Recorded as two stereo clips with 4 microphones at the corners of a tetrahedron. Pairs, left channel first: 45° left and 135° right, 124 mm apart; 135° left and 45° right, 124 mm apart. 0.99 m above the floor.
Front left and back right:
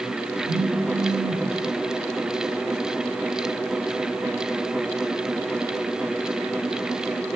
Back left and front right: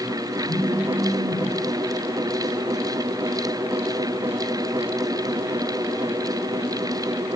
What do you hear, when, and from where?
0.4 s a phone buzzing: 135° right, 4.5 m